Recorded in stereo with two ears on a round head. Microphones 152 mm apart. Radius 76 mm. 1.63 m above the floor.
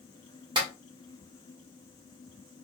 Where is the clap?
30° right (ahead or behind), 1.4 m.